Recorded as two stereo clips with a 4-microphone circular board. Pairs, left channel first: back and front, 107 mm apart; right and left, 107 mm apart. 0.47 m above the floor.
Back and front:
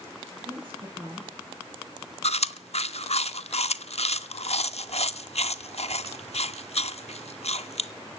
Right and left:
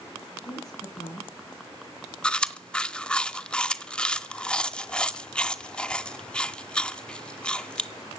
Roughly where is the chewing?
Behind.